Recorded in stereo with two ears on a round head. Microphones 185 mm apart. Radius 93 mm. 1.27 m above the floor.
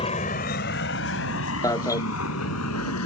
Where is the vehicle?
30° left (ahead or behind); by 3.1 s 80° left.